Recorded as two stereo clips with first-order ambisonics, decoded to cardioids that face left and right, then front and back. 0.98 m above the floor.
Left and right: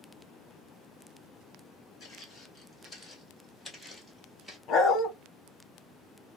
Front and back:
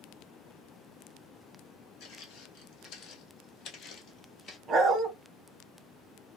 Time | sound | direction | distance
2.0 | footsteps | 20° left | 2 m
4.7 | a dog barking | 125° left | 1.0 m